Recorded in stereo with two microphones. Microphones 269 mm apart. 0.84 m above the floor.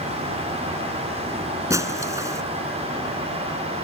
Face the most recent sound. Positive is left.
turn(degrees=-10)  # may be behind; listen again after turning